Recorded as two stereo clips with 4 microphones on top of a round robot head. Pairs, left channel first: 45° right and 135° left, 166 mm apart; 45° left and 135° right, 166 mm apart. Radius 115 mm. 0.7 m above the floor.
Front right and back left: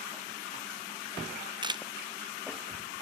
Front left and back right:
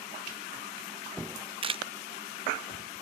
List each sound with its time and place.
1.6 s a camera shutter: 175° right, 0.7 m